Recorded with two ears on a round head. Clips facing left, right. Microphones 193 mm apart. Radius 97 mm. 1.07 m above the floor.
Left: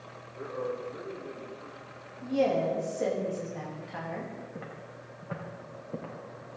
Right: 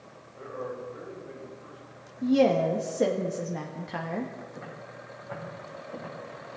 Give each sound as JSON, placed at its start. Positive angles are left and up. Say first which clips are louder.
{"t": 0.3, "sound": "a man speaking", "louder": "left 2 dB", "side_deg": 65, "distance_m": 3.5}
{"t": 2.2, "sound": "a woman speaking", "louder": "right 5 dB", "side_deg": -65, "distance_m": 1.2}
{"t": 4.5, "sound": "footsteps", "louder": "right 1 dB", "side_deg": 55, "distance_m": 4.0}